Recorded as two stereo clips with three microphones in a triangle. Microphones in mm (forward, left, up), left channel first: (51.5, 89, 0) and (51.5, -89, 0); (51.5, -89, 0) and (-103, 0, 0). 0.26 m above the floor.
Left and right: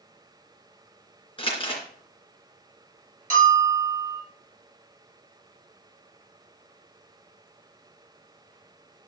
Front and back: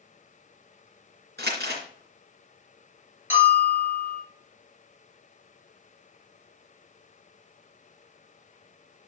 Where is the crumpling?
145° left, 3 m.